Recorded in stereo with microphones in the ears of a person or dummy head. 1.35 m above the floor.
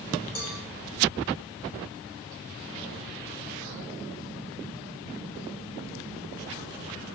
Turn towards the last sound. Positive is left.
turn(degrees=50)  # may be behind; listen again after turning